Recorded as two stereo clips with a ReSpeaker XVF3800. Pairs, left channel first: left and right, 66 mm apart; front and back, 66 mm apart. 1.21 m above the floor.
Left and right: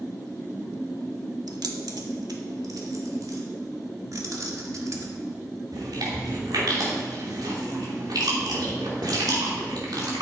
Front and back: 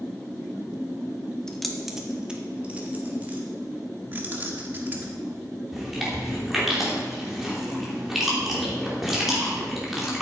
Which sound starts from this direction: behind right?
Keys jangling, at 4.1 s.